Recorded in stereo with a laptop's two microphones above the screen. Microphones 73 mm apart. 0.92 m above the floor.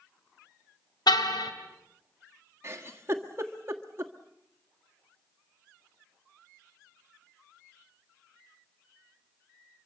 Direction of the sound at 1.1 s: 80° left.